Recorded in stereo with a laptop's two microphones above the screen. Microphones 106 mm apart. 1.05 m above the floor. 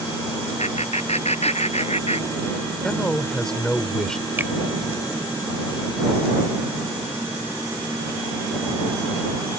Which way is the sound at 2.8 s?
5° left (ahead or behind).